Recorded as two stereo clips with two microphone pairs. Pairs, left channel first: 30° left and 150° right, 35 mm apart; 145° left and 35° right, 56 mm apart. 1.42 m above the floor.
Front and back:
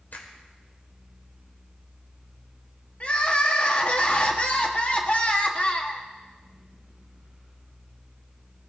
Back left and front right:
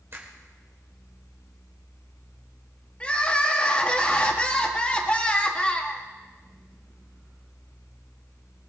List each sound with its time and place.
0.1 s a finger snap: 5° left, 4 m
3.0 s crying: 75° left, 1.7 m